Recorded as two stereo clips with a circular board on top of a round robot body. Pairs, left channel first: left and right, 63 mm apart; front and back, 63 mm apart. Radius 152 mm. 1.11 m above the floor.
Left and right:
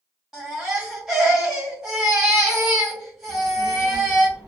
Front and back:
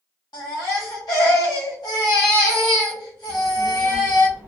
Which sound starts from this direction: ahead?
A baby crying, at 0.3 s.